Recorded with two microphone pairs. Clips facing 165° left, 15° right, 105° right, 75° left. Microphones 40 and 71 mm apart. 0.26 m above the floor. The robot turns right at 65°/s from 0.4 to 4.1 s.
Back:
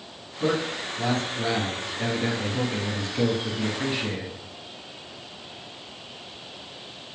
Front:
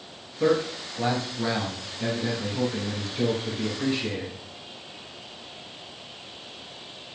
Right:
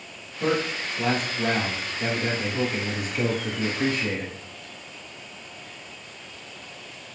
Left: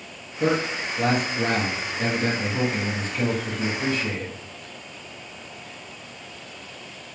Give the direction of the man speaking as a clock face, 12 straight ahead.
12 o'clock.